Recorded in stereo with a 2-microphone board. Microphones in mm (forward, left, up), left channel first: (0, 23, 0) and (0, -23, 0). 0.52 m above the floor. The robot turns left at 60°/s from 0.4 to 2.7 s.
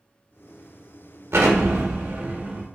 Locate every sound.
1.3 s an explosion: 80° right, 0.6 m; by 2.6 s 160° right, 0.6 m